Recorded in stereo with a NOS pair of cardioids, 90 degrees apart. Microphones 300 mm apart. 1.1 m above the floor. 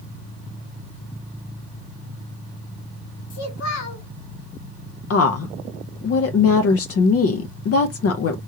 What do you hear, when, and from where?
3.3 s a child speaking: 65° left, 1.7 m
5.1 s a woman speaking: 50° left, 0.6 m